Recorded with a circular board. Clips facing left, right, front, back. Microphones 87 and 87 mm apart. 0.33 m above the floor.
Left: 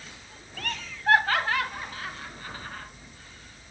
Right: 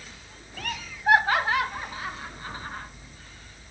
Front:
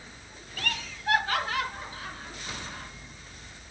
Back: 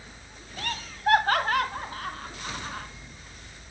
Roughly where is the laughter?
Behind.